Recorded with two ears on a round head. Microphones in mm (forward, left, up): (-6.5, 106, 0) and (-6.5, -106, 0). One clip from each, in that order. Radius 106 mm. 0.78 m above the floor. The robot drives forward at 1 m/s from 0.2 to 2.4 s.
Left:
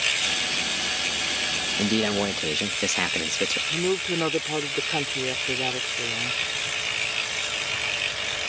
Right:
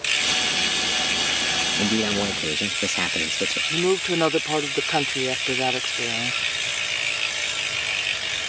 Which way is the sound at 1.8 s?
25° left (ahead or behind).